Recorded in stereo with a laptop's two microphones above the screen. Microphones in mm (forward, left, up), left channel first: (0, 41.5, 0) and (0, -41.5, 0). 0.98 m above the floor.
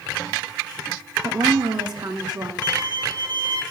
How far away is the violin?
About 2.5 m.